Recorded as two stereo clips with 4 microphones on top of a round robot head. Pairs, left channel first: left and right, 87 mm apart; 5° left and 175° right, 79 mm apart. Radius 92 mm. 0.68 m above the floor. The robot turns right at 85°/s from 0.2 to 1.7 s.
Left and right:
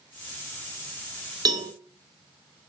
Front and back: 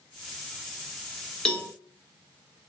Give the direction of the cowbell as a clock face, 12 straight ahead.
2 o'clock.